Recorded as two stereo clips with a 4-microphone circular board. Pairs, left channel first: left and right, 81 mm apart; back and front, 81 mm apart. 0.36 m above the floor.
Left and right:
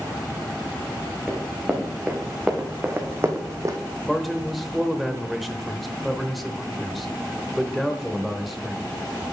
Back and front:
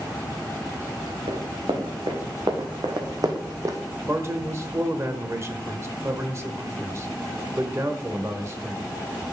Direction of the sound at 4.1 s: Straight ahead.